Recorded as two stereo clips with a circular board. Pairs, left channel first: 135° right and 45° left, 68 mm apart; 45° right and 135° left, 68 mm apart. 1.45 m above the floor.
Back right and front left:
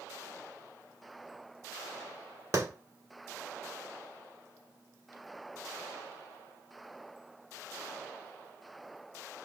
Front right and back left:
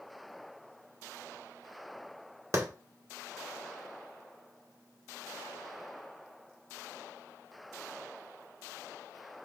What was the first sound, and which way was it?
A clap, 90° left.